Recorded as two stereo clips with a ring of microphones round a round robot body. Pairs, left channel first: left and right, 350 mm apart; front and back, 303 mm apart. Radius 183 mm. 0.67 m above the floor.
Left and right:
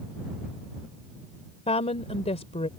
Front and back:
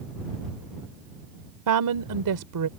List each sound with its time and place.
1.7 s a woman speaking: 165° left